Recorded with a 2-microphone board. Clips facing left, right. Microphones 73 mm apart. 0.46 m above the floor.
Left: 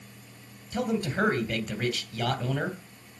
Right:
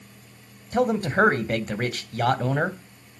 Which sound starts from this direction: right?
A man speaking, at 0.7 s.